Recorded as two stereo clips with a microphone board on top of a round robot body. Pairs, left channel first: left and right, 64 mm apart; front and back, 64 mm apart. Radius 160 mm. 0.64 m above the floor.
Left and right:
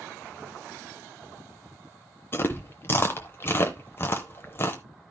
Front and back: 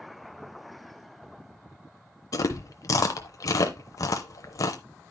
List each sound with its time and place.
2.3 s chewing: 35° left, 0.6 m